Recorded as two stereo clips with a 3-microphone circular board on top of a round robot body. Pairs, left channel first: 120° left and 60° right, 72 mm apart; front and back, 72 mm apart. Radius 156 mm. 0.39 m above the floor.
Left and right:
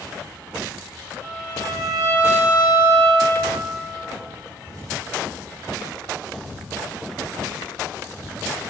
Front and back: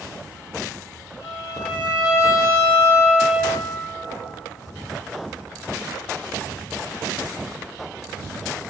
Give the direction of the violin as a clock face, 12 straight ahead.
4 o'clock.